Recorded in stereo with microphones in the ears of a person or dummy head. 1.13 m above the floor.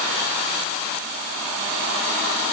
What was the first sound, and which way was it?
Only background noise.